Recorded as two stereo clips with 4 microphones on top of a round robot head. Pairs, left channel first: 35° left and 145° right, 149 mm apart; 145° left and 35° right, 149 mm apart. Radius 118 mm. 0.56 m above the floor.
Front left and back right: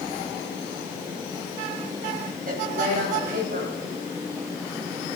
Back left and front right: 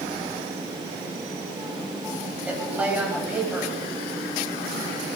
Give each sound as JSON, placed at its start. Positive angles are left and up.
{"t": 2.5, "sound": "a woman speaking", "azimuth_deg": -115, "distance_m": 3.5}